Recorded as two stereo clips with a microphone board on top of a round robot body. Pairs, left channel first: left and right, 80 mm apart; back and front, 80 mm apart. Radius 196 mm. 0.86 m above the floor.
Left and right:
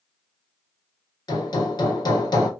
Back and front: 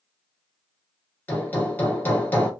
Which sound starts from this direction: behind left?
Hammering, at 1.3 s.